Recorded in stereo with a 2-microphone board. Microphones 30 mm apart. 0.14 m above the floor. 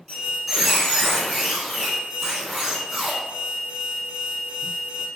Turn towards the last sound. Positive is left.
turn(degrees=-10)  # may be behind; listen again after turning